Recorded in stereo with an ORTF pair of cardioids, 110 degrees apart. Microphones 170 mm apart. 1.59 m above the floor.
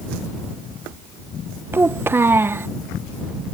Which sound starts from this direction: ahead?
A child speaking, at 1.7 s.